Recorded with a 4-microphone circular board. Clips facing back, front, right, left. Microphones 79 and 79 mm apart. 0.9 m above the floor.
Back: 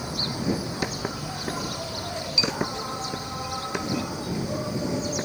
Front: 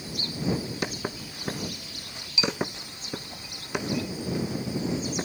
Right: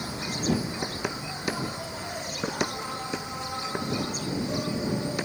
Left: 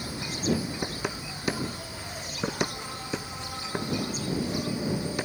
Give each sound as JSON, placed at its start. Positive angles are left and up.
{"t": 0.0, "sound": "an insect", "azimuth_deg": -160}